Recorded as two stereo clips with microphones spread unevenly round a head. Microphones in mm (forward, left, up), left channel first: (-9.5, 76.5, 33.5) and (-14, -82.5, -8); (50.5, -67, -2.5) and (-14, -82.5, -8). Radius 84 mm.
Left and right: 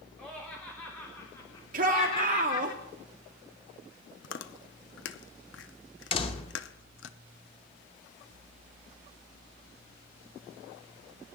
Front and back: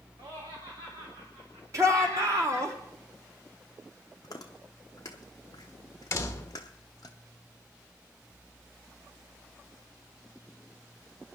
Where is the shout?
130° right, 2.5 m.